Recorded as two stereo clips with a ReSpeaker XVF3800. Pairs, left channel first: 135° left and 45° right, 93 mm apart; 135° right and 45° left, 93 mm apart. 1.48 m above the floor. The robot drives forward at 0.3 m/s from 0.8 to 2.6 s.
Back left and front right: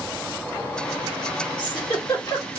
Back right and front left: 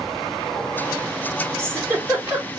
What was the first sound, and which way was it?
A giggle, 105° left.